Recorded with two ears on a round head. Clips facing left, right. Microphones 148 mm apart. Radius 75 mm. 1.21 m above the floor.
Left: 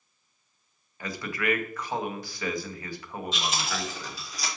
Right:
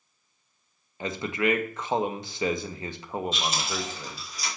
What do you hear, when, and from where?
1.0 s a man speaking: 20° right (ahead or behind), 0.8 m
3.3 s chewing: 60° left (ahead or behind), 3 m